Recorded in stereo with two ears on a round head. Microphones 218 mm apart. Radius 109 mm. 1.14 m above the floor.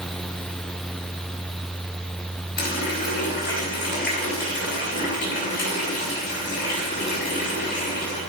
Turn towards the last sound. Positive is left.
turn(degrees=45)  # may be behind; listen again after turning